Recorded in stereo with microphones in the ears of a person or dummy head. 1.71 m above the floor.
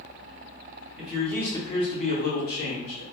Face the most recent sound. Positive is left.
turn(degrees=70)  # may be behind; listen again after turning